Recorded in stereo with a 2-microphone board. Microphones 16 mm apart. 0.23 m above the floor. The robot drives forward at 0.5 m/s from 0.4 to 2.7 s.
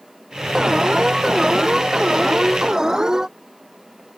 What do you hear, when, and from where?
0.6 s an alarm: 35° right (ahead or behind); by 3.3 s 30° right (ahead or behind)